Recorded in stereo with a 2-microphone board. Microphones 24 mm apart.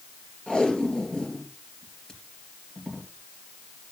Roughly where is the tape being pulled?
Left.